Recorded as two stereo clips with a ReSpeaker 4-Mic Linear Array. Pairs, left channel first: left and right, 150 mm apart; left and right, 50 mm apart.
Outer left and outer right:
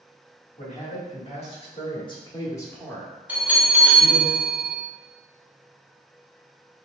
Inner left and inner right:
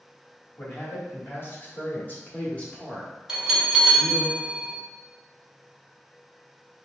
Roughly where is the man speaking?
Left.